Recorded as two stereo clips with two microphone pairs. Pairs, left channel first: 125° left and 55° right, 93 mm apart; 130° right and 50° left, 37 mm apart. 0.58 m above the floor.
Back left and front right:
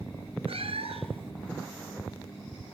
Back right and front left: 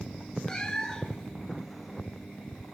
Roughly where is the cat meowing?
Ahead right.